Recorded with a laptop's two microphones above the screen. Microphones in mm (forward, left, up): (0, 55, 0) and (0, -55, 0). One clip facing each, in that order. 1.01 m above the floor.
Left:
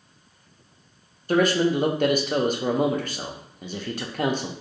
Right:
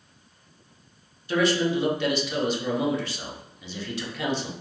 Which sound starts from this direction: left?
A man speaking, at 1.3 s.